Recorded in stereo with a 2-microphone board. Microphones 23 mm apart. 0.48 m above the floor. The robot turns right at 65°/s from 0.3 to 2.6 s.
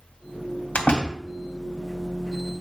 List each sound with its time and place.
0.8 s a door slam: 65° left (ahead or behind), 2 m; by 1.2 s 75° left (ahead or behind), 2 m